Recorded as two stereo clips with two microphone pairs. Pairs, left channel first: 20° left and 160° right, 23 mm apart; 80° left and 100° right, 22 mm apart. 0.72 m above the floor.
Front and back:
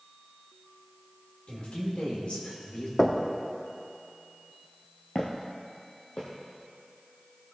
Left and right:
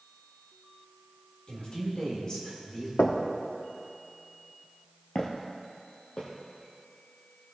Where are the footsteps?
40° left, 1.1 m; by 6.3 s 45° left, 2.0 m.